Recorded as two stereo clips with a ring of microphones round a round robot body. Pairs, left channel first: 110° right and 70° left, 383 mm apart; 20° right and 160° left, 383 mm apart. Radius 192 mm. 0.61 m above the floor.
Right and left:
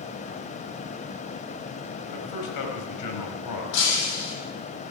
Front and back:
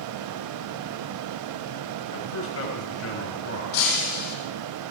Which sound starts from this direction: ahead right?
Breaking glass, at 3.7 s.